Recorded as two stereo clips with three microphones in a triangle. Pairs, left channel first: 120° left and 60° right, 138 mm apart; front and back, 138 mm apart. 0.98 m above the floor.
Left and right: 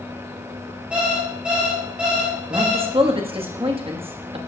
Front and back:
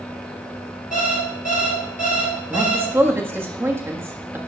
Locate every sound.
0.9 s an alarm clock: 20° left, 3 m
2.5 s a man speaking: 105° right, 1.3 m